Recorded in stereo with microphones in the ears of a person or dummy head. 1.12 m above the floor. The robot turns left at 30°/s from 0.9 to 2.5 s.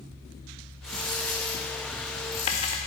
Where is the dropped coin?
Straight behind, 0.6 m; by 2.8 s 130° left, 0.6 m.